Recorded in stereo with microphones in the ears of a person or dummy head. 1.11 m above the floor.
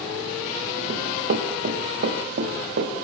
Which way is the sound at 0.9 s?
55° right (ahead or behind).